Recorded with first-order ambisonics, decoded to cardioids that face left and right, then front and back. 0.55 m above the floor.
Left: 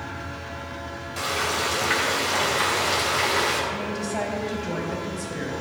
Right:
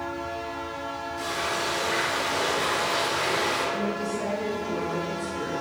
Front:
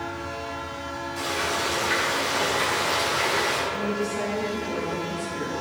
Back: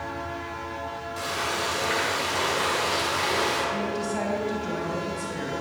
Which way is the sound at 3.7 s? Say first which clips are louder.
Even, front 1 dB; 115° left.